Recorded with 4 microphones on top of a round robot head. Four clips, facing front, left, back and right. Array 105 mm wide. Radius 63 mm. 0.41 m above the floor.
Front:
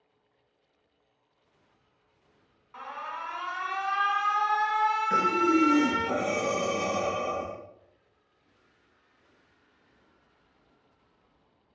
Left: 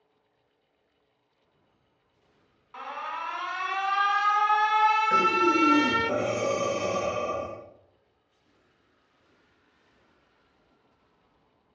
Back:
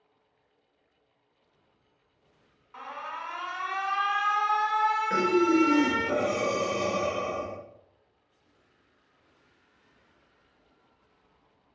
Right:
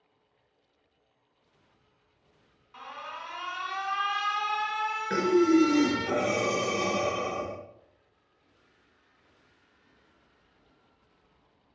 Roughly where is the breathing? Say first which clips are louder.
Right 1 dB, back 2 dB; right.